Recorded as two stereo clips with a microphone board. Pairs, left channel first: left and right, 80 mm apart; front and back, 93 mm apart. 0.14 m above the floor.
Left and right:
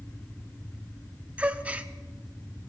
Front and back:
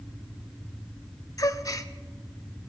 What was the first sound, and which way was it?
A gasp, 25° right.